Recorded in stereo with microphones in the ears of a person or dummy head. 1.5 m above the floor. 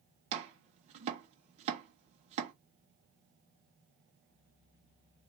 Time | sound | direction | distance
0.3 | chopping | 40° right (ahead or behind) | 1.2 m